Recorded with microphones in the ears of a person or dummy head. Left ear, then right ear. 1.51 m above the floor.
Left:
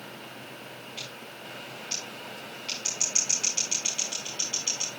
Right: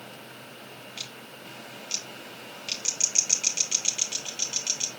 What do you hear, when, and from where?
1.0 s scissors: 30° right (ahead or behind), 6.5 m